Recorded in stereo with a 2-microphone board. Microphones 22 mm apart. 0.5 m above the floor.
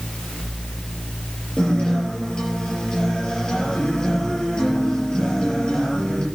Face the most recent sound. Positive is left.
turn(degrees=45)  # may be behind; listen again after turning